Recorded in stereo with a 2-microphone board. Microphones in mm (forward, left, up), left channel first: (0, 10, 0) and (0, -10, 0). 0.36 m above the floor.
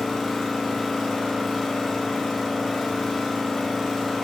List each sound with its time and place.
0.0 s an engine running: 5° left (ahead or behind), 1.4 m